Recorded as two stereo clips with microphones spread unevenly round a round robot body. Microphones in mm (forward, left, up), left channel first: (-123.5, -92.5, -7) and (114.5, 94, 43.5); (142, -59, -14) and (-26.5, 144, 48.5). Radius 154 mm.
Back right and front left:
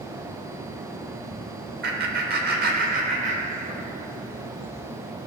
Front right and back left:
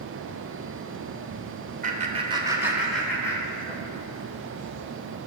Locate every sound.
1.8 s laughter: 75° left, 1.2 m; by 3.9 s 35° right, 1.3 m